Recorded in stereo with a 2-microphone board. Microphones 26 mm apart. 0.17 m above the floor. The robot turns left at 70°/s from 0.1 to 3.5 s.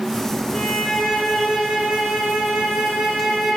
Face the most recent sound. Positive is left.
turn(degrees=-155)